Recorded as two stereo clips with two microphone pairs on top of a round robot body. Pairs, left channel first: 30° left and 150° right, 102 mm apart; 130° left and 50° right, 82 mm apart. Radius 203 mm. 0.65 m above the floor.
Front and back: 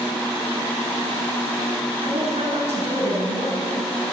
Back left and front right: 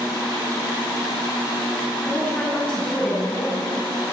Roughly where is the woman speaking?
Behind right.